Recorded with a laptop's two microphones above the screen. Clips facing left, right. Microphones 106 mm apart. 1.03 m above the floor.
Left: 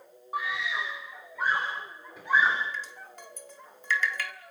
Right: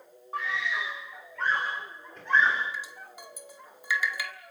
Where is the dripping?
10° right (ahead or behind), 1.5 m.